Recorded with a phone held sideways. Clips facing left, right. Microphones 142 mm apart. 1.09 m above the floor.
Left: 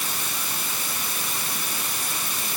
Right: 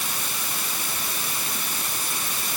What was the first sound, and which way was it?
Only background noise.